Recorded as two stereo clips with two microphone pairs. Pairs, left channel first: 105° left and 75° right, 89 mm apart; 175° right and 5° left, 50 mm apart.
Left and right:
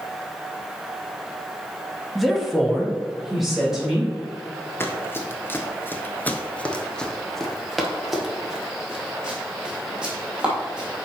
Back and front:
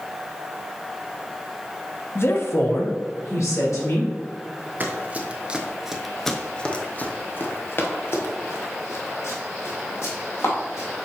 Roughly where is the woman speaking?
Behind.